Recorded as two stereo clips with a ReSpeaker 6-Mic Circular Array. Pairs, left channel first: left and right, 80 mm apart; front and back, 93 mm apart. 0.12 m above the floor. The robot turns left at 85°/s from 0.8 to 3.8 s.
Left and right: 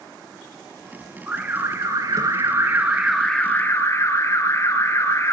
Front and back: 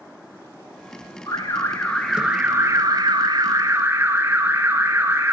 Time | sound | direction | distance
1.3 | an alarm | 20° right | 2.5 m